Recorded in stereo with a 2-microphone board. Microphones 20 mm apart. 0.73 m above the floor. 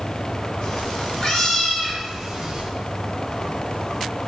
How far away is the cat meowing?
About 1.0 m.